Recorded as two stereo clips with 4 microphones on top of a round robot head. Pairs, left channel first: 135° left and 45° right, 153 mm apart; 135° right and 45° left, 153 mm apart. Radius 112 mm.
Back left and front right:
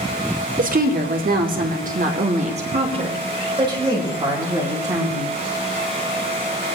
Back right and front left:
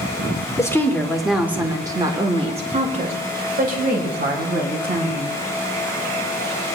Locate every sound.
0.6 s a woman speaking: 65° right, 1.8 m; by 5.4 s 25° left, 4.5 m